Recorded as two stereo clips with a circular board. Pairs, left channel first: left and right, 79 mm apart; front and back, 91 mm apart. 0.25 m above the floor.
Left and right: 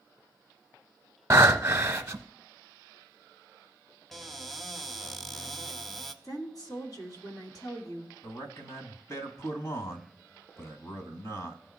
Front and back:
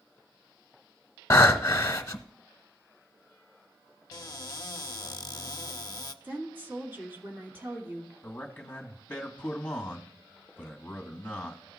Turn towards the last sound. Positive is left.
turn(degrees=65)